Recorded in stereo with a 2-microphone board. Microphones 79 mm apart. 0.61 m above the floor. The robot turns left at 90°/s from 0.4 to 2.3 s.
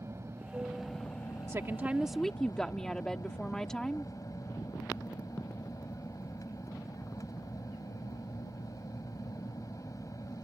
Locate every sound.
0.0 s an aircraft: 140° right; by 10.4 s 50° left
1.5 s a woman speaking: 115° right; by 4.1 s 170° left